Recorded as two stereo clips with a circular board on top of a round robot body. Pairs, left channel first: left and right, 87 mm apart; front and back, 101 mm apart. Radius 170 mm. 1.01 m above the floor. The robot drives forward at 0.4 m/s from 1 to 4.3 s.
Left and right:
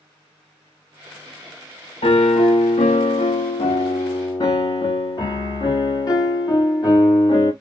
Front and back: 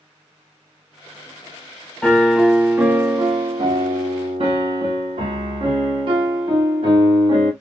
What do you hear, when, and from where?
2.0 s a piano: 80° left, 0.8 m; by 7.5 s 140° left, 1.1 m